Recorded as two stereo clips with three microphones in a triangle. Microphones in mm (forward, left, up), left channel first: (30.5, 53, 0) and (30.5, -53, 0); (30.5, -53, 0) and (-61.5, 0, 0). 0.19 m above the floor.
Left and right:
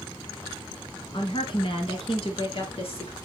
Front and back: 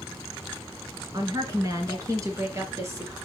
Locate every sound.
1.1 s a woman speaking: 105° left, 2.5 m; by 3.1 s 90° left, 3 m